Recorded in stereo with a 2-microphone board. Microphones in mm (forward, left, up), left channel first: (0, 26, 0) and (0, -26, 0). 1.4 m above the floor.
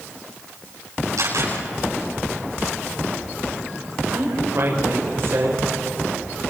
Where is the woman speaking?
50° right (ahead or behind), 6.5 m.